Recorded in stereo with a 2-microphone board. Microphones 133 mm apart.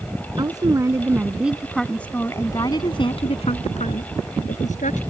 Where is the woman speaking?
30° right (ahead or behind); by 5.0 s 70° left (ahead or behind).